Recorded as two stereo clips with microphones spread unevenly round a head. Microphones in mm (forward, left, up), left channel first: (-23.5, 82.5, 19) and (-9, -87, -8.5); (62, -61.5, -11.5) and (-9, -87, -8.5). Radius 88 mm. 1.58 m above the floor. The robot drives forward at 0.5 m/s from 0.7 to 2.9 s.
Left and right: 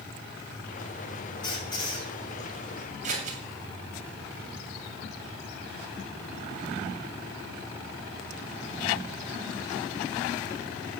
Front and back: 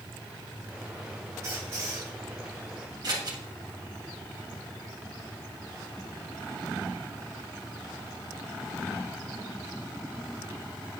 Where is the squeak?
145° left, 2.5 m; by 2.1 s 150° left, 2.5 m.